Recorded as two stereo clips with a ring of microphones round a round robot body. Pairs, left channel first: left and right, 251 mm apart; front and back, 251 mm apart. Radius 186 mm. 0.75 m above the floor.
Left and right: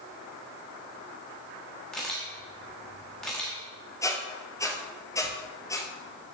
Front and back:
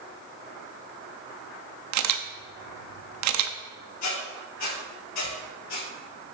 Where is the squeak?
15° left, 1.5 m.